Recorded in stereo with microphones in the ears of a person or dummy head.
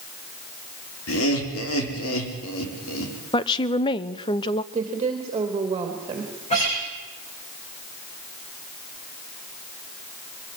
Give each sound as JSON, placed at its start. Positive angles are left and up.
{"t": 1.1, "sound": "laughter", "side_deg": 80, "distance_m": 4.5}
{"t": 3.3, "sound": "a woman speaking", "side_deg": 25, "distance_m": 0.8}
{"t": 4.7, "sound": "a woman speaking", "side_deg": -25, "distance_m": 2.5}
{"t": 6.5, "sound": "a guitar", "side_deg": 35, "distance_m": 7.5}